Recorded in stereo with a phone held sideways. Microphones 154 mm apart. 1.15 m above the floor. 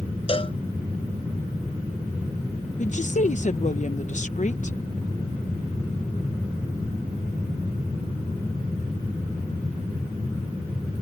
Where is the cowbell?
35° left (ahead or behind).